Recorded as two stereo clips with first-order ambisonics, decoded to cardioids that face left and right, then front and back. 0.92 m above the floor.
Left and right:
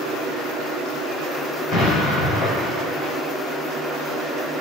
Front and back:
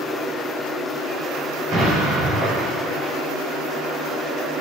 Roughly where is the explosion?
Behind left.